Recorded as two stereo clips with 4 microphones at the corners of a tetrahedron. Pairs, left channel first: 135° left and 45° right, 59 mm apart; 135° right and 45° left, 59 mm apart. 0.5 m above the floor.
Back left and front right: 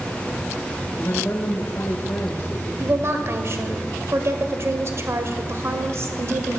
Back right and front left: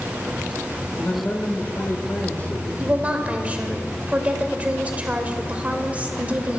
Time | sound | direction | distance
0.9 | a man speaking | 175° left | 2.5 m
2.8 | a woman speaking | 15° right | 1.9 m